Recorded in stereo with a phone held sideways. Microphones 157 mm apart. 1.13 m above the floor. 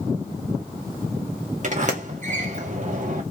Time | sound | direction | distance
1.6 | a sliding door | 50° right (ahead or behind) | 0.6 m